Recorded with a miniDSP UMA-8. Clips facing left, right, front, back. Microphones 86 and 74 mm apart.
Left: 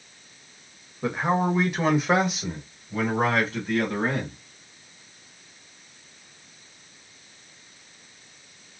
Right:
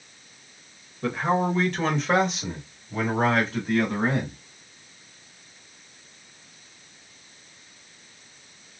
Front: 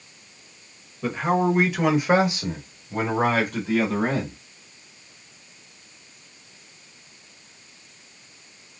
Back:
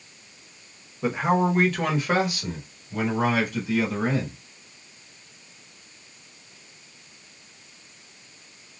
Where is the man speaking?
130° left, 1.2 m; by 4.3 s 5° right, 2.5 m.